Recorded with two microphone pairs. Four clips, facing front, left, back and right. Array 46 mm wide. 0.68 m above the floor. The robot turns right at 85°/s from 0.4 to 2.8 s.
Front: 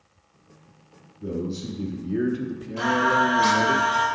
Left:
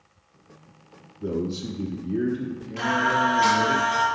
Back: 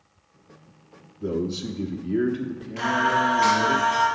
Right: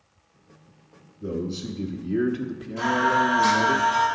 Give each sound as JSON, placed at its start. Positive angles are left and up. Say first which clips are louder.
{"t": 1.2, "sound": "a man speaking", "louder": "left 2 dB, back 3 dB", "azimuth_deg": 130, "distance_m": 0.9}
{"t": 2.8, "sound": "singing", "louder": "right 1 dB, front 1 dB", "azimuth_deg": 140, "distance_m": 4.5}